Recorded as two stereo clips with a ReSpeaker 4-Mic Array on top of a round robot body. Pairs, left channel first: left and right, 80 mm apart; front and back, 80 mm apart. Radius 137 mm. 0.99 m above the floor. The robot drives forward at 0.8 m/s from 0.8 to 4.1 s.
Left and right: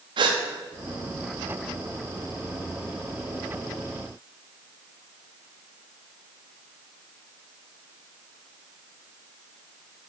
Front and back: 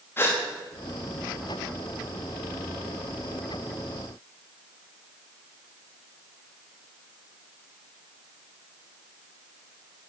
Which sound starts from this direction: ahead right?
A gasp, at 0.2 s.